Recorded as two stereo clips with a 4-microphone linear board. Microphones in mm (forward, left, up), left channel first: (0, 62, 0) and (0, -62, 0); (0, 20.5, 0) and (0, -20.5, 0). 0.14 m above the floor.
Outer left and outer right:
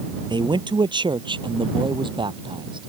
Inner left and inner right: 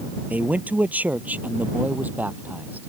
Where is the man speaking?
40° right (ahead or behind).